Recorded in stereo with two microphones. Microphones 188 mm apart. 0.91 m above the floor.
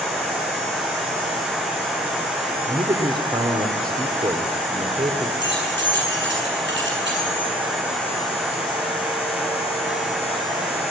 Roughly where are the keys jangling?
Right.